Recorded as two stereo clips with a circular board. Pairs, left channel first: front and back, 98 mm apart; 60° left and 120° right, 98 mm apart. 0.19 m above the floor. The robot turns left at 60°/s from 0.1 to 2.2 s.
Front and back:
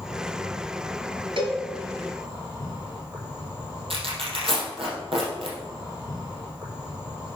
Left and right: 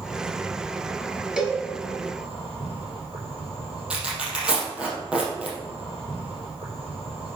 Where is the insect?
10° right, 5.5 m; by 7.4 s 135° right, 5.5 m.